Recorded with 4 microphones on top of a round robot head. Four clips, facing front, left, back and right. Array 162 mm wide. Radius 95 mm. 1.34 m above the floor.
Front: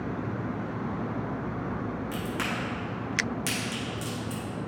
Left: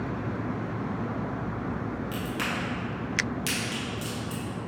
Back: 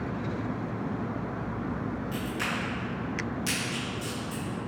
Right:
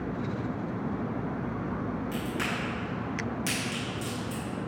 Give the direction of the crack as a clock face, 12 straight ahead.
11 o'clock.